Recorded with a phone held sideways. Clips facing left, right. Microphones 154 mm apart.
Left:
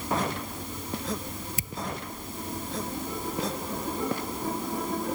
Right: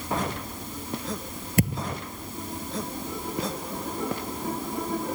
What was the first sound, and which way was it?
A thud, 65° right (ahead or behind).